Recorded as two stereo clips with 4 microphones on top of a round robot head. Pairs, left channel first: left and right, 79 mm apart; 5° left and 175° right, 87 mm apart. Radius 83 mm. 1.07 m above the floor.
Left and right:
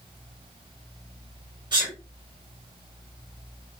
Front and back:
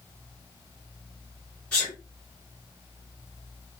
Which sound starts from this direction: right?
A sneeze, at 1.7 s.